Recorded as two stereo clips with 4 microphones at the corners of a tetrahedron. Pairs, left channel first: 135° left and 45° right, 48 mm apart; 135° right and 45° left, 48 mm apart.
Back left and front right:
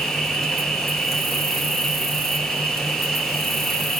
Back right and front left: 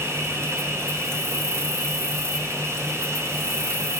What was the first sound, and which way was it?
An insect, 50° left.